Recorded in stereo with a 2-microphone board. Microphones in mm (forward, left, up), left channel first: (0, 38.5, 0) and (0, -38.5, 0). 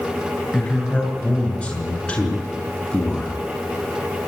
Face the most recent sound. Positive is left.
turn(degrees=10)  # may be behind; listen again after turning